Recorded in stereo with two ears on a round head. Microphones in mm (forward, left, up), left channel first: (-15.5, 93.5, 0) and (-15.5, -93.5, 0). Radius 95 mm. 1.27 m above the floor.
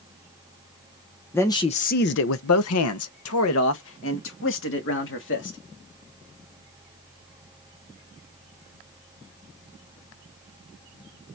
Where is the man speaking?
10° left (ahead or behind), 0.8 m; by 5.6 s 65° left (ahead or behind), 3 m.